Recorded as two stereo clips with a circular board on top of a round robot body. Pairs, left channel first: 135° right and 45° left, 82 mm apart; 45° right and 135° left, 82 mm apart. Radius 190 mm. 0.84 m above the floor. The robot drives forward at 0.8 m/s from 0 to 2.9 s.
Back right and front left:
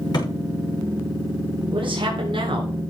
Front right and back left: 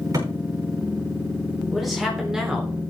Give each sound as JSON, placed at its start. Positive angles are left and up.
{"t": 0.1, "sound": "a thud", "azimuth_deg": -175, "distance_m": 6.0}
{"t": 1.7, "sound": "a man speaking", "azimuth_deg": 45, "distance_m": 4.0}